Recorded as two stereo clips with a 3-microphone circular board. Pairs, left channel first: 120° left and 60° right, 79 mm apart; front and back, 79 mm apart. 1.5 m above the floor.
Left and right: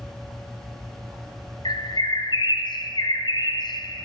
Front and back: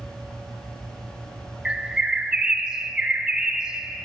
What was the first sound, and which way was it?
A bird, 100° left.